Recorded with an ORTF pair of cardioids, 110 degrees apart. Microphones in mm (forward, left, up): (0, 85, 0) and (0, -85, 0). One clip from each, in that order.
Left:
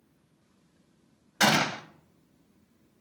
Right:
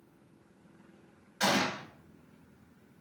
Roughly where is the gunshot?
Ahead left.